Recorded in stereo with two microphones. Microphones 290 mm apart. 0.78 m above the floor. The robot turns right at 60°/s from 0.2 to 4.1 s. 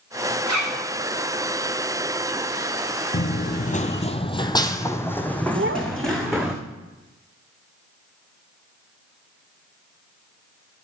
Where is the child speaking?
45° right (ahead or behind), 1.1 m.